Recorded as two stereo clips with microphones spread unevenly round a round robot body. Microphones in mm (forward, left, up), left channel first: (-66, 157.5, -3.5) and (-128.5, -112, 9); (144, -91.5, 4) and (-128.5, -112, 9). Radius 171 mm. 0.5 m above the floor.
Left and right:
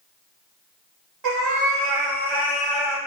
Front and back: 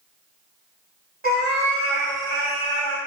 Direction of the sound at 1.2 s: 115° right.